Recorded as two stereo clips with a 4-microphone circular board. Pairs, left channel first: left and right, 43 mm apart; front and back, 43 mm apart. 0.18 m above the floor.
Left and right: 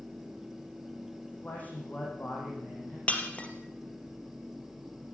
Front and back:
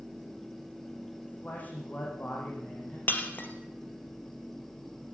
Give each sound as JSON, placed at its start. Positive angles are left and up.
{"t": 1.2, "sound": "a man speaking", "azimuth_deg": 45, "distance_m": 6.5}
{"t": 3.1, "sound": "breaking glass", "azimuth_deg": 35, "distance_m": 3.0}